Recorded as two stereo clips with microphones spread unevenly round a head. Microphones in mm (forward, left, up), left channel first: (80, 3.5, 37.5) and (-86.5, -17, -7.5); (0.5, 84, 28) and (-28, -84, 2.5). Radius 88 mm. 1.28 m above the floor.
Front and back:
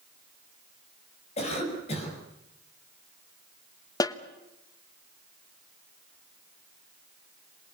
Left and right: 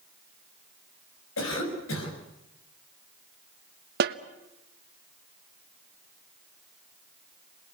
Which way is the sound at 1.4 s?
65° left.